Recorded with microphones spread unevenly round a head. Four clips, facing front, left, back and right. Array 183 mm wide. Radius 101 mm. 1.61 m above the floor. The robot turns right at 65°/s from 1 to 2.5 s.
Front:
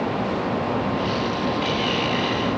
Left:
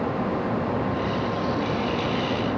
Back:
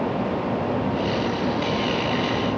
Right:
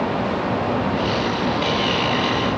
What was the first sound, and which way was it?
Only background noise.